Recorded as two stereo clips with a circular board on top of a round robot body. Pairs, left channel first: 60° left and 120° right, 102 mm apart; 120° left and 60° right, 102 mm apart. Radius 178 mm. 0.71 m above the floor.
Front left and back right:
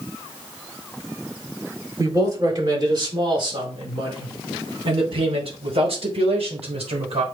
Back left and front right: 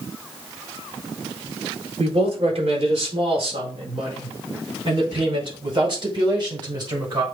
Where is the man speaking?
70° right, 4.5 m; by 7.2 s 105° right, 6 m.